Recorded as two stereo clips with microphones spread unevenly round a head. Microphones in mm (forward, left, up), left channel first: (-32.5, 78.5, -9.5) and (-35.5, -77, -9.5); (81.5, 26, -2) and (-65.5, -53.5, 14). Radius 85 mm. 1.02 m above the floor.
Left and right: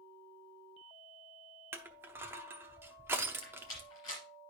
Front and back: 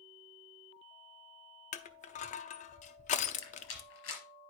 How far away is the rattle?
About 4 m.